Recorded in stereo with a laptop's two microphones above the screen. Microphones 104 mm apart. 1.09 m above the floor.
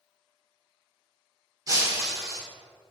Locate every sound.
1.7 s breaking glass: 35° right (ahead or behind), 1.7 m